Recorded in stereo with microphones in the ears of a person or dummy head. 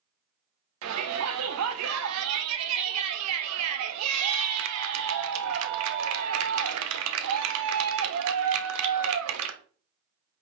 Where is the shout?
85° right, 1.3 m.